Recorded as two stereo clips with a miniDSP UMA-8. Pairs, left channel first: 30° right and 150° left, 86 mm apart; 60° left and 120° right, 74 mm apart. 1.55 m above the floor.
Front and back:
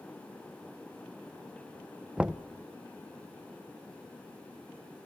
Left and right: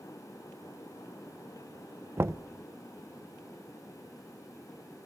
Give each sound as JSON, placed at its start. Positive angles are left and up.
{"t": 2.2, "sound": "knocking", "azimuth_deg": -135, "distance_m": 0.7}